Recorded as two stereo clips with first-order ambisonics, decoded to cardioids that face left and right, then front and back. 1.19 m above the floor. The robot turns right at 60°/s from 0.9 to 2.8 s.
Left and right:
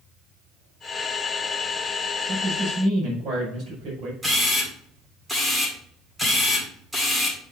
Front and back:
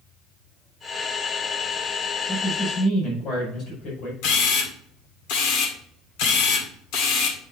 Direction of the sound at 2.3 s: 75° right.